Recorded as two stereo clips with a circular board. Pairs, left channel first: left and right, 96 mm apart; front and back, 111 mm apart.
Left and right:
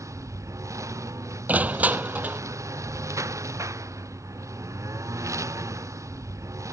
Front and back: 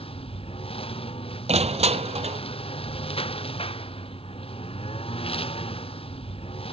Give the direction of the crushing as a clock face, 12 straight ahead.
5 o'clock.